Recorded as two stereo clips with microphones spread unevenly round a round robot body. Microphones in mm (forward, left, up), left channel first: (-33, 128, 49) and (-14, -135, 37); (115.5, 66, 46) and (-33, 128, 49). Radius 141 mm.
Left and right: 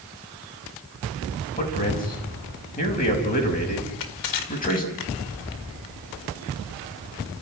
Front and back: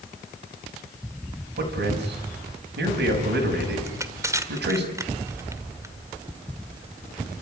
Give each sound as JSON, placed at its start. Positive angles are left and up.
{"t": 1.6, "sound": "a man speaking", "azimuth_deg": 155, "distance_m": 6.0}
{"t": 3.9, "sound": "crushing", "azimuth_deg": 85, "distance_m": 1.8}